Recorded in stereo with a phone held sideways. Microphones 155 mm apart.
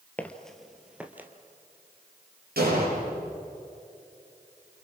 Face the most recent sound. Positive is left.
turn(degrees=-75)  # may be behind; listen again after turning